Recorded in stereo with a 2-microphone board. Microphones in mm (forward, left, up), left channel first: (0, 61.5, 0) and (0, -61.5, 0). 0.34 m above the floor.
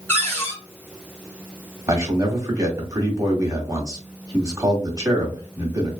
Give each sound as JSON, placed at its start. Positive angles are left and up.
{"t": 0.1, "sound": "a cupboard door", "side_deg": 15, "distance_m": 1.4}
{"t": 1.9, "sound": "a man speaking", "side_deg": -30, "distance_m": 1.7}